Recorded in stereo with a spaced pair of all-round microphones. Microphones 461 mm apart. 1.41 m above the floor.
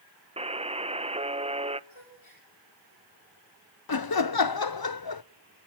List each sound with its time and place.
0.4 s a buzzer: 15° right (ahead or behind), 0.7 m
1.9 s a gasp: 85° left, 8 m
3.9 s laughter: 50° left (ahead or behind), 0.6 m